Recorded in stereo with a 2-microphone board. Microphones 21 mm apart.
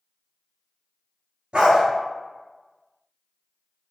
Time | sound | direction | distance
1.5 | a dog barking | 60° right (ahead or behind) | 1.1 m